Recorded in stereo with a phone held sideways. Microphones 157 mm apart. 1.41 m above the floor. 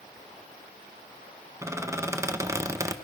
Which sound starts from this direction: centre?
A squeak, at 1.6 s.